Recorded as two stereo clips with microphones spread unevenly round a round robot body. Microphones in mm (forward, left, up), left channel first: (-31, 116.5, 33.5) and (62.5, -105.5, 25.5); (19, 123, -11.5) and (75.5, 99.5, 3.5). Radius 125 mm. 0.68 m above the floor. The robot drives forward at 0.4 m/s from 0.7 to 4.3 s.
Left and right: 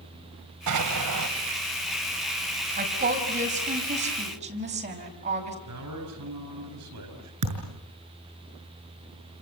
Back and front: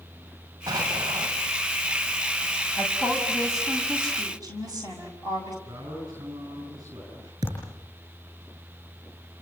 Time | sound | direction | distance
0.7 | an explosion | 65° right | 2.5 m
2.8 | a woman speaking | 125° right | 5 m
5.7 | a man speaking | 95° right | 9.5 m
7.4 | a thud | 80° right | 6 m